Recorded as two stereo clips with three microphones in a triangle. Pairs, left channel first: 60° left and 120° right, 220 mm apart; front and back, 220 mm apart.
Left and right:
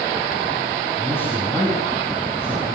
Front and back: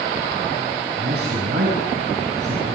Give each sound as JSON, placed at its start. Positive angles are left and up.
{"t": 1.0, "sound": "a man speaking", "azimuth_deg": 140, "distance_m": 7.0}